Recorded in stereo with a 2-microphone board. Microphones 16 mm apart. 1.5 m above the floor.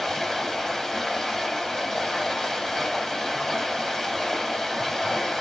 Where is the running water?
40° left (ahead or behind), 1.9 m.